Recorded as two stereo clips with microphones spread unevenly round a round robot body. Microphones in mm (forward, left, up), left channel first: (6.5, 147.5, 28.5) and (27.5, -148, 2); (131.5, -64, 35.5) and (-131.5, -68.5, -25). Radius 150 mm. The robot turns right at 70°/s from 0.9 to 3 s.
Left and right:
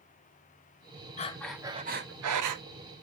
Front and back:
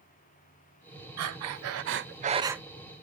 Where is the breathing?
160° left, 0.8 m; by 2.6 s 95° right, 0.8 m.